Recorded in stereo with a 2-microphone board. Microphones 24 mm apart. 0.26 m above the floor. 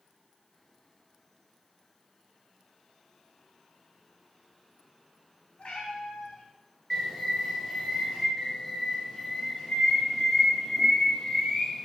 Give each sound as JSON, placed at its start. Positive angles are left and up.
{"t": 5.6, "sound": "a cat meowing", "side_deg": 55, "distance_m": 0.6}
{"t": 6.9, "sound": "a bird", "side_deg": 5, "distance_m": 1.4}
{"t": 8.4, "sound": "a bird", "side_deg": 25, "distance_m": 0.6}